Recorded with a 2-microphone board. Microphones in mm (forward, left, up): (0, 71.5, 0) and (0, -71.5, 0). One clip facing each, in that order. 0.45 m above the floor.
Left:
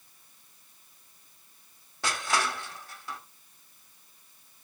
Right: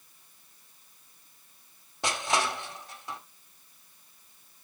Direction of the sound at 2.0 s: 20° right (ahead or behind).